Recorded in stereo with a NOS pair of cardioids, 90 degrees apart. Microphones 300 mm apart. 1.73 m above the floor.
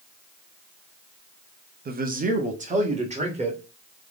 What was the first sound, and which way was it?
A man speaking, 30° right.